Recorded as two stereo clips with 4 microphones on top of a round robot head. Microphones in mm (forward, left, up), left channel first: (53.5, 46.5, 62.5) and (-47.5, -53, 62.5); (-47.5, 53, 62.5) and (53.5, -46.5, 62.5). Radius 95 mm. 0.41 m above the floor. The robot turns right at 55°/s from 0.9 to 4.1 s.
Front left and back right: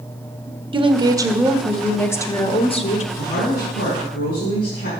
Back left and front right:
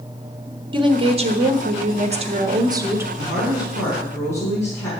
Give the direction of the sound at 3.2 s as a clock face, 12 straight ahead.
12 o'clock.